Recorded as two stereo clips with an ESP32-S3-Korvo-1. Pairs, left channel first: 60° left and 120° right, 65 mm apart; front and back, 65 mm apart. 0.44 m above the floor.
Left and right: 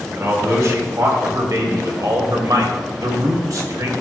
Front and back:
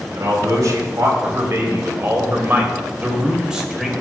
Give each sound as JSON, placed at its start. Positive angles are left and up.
{"t": 0.1, "sound": "a man speaking", "azimuth_deg": -160, "distance_m": 2.5}